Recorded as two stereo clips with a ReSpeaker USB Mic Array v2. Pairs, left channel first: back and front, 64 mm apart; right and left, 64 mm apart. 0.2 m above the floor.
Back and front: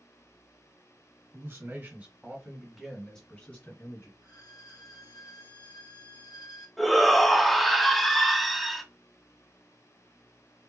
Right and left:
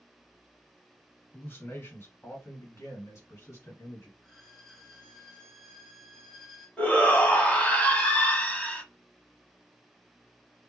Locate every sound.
1.3 s a man speaking: 35° right, 2.5 m; by 4.1 s 130° right, 2.5 m
4.2 s a violin: 175° right, 1.9 m
6.8 s a shout: 85° right, 1.0 m